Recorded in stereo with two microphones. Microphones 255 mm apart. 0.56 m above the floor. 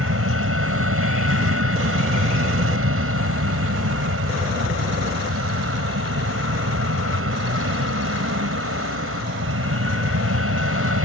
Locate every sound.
0.0 s an aircraft: 60° right (ahead or behind)